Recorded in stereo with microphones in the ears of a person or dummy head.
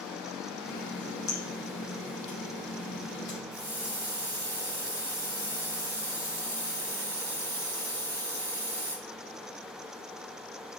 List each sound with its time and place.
0.7 s a running tap: 65° left (ahead or behind), 2.5 m
3.5 s a hiss: 15° left (ahead or behind), 1.8 m